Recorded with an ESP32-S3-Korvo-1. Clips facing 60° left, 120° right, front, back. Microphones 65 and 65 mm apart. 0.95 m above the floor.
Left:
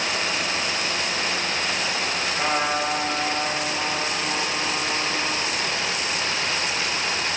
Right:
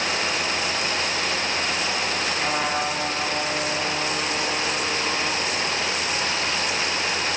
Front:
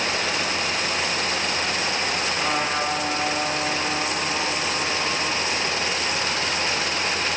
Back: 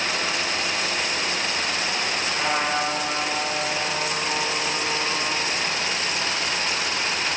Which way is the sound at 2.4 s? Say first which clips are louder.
Left 3 dB, back 2 dB; 115° left.